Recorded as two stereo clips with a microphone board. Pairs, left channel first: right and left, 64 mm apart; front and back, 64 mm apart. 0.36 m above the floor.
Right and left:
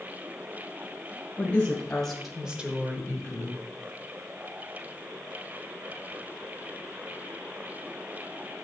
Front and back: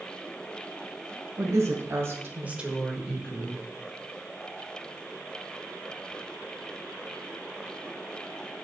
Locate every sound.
1.4 s a woman speaking: 155° right, 2.5 m; by 3.6 s 60° left, 2 m